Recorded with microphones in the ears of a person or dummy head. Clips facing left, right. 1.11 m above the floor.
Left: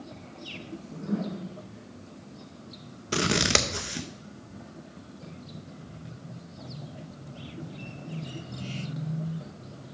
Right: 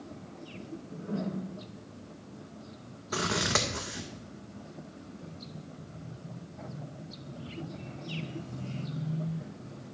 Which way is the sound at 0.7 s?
75° left (ahead or behind).